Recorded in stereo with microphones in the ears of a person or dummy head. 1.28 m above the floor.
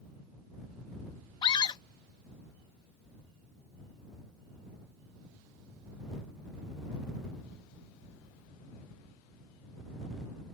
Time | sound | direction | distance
1.4 | a scream | 30° left (ahead or behind) | ?